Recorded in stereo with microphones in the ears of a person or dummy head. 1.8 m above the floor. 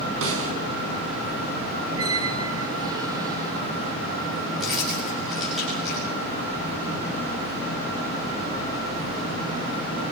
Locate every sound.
0.2 s a snare drum: 75° right (ahead or behind), 6 m
1.9 s a squeak: 25° right (ahead or behind), 1.6 m
4.6 s keys jangling: centre (ahead or behind), 7 m